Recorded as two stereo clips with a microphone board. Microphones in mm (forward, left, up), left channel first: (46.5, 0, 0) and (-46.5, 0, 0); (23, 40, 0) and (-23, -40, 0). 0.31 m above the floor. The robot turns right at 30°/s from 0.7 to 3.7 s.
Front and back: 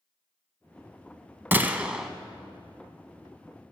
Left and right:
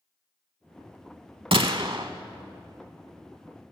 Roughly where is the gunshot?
Right.